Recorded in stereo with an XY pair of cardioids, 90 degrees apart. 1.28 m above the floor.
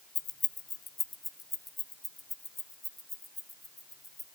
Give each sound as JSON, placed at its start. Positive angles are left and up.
{"t": 0.1, "sound": "keys jangling", "azimuth_deg": 60, "distance_m": 0.6}